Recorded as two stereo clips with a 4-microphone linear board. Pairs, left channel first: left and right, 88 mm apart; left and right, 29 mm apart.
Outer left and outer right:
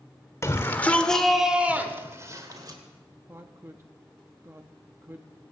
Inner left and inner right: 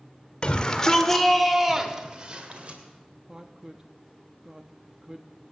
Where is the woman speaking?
25° right (ahead or behind), 0.8 m.